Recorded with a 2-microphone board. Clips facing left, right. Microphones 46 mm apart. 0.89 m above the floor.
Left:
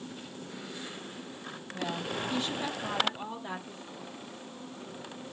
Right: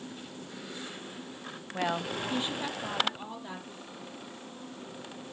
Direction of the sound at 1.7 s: 60° right (ahead or behind).